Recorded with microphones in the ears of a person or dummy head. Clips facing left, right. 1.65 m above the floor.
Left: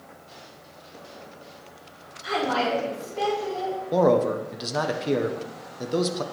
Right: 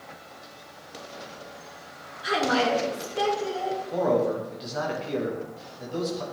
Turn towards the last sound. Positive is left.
turn(degrees=70)  # may be behind; listen again after turning